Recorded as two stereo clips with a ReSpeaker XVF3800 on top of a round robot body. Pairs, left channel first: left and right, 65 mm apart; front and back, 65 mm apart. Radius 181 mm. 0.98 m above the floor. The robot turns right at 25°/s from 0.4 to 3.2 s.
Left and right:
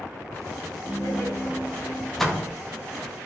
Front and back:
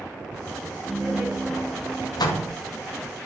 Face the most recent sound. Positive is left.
turn(degrees=30)